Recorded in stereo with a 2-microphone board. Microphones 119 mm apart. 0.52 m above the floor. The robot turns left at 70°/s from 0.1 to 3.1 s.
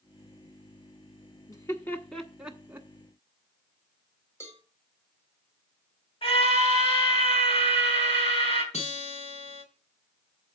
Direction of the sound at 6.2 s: 50° left (ahead or behind).